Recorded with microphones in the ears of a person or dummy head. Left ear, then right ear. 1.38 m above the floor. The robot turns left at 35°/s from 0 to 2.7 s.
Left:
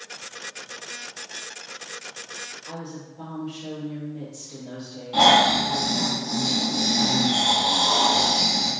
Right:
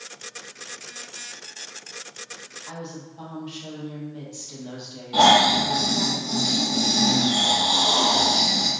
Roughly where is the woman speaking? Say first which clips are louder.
Even; right.